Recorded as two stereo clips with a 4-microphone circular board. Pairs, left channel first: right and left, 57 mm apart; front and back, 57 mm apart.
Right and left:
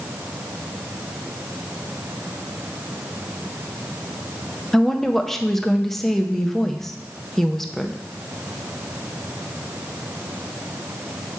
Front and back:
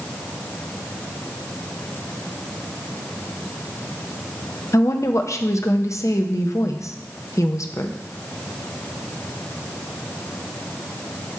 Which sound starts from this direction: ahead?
A woman speaking, at 4.7 s.